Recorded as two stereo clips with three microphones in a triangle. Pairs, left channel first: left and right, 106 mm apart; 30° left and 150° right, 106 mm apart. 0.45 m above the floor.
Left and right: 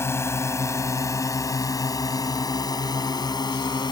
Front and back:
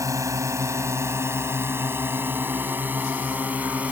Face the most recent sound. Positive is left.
turn(degrees=135)